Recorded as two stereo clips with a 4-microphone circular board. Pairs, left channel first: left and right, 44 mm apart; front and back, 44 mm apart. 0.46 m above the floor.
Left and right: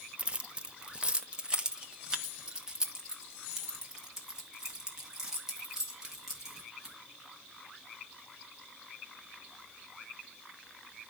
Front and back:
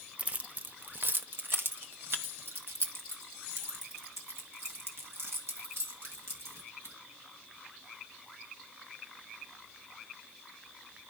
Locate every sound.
0.2 s keys jangling: 140° right, 0.7 m; by 6.9 s 170° right, 4 m